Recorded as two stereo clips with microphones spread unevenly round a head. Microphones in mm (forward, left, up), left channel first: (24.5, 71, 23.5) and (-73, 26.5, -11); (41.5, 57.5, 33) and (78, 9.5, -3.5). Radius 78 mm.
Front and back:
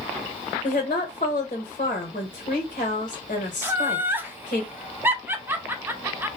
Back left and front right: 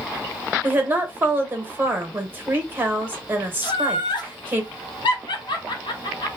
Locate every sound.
0.6 s a woman speaking: 15° right, 1.3 m
3.6 s laughter: 160° left, 0.8 m